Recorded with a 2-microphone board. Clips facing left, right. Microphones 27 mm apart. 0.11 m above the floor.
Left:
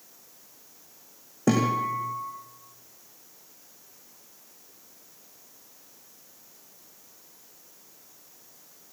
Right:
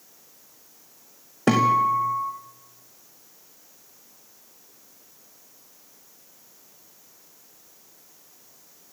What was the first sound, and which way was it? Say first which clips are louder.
A guitar: right 5 dB; 60° right (ahead or behind).